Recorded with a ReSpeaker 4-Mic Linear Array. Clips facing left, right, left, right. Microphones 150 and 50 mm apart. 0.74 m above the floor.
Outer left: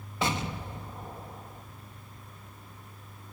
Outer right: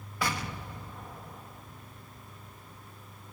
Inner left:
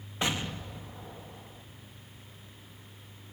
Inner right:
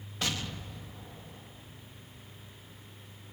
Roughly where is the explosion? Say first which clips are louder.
Outer left 3 dB, inner left 3 dB; left.